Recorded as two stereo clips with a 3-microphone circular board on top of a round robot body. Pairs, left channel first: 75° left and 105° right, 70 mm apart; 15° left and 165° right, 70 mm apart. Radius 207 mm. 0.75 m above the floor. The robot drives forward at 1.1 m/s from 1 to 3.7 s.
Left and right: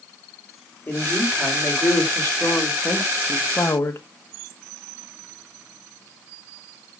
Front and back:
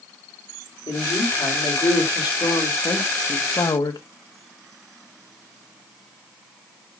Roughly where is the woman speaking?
Ahead.